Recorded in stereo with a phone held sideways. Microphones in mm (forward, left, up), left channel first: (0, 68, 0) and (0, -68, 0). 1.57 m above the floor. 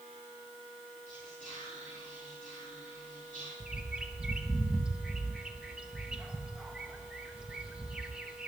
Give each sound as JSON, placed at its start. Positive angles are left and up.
{"t": 1.1, "sound": "whispering", "side_deg": 65, "distance_m": 4.0}
{"t": 3.6, "sound": "a bird", "side_deg": -5, "distance_m": 1.0}